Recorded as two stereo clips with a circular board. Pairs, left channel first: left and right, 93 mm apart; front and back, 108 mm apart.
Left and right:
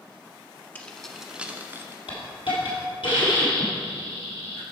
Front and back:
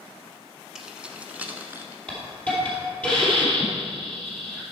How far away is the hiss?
About 2.5 m.